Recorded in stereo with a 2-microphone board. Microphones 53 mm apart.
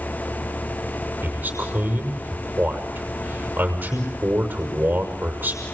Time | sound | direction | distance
1.2 | a man speaking | 35° right (ahead or behind) | 6 m